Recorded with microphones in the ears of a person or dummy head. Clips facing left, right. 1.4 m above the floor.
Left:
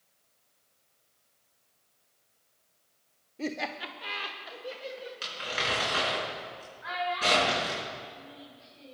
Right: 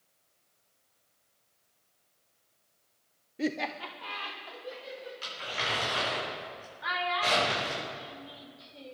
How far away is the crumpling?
About 5 m.